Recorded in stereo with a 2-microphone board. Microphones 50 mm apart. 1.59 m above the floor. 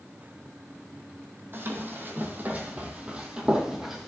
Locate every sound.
1.5 s running footsteps: 50° right (ahead or behind), 2.5 m; by 4.1 s 5° right (ahead or behind), 2.5 m